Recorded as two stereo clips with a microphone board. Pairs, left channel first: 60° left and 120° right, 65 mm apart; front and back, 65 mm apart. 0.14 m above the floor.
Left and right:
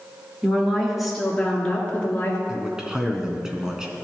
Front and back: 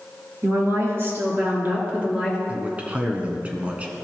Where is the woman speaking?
170° left, 2.5 m; by 2.4 s 110° left, 2.5 m.